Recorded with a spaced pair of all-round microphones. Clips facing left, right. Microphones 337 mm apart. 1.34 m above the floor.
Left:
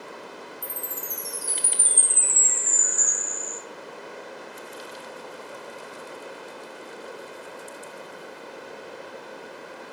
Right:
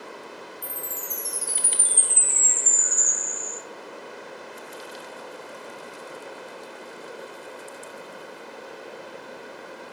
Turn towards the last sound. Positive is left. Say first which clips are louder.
# even
turn(degrees=-50)  # may be behind; listen again after turning